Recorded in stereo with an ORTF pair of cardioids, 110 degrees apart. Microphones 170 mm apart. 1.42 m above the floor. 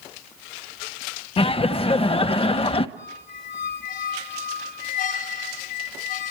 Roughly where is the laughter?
Ahead left.